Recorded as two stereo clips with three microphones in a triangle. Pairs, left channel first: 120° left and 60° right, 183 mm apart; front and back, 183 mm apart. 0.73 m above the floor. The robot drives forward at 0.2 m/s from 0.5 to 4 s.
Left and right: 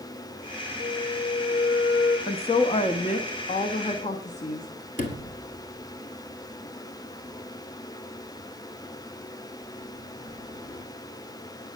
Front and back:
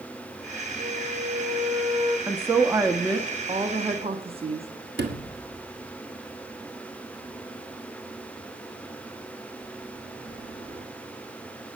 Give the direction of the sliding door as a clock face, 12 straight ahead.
7 o'clock.